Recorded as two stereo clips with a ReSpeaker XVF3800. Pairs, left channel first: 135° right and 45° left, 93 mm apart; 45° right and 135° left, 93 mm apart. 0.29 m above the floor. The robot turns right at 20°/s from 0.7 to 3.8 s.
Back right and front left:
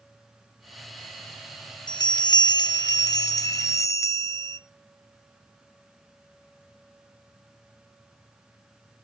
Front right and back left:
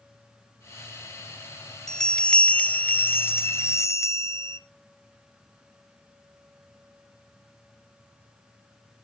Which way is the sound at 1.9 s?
130° right.